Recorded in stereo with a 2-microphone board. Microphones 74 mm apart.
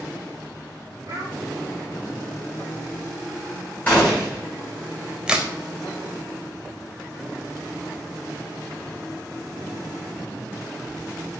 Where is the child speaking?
50° right (ahead or behind), 1.0 m.